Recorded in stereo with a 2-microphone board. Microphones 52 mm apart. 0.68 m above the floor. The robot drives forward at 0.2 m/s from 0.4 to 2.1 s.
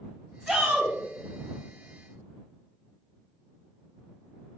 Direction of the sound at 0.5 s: 5° right (ahead or behind).